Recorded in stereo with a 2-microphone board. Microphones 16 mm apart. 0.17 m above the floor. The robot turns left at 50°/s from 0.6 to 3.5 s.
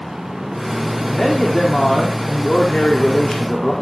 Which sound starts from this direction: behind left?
A man speaking, at 1.1 s.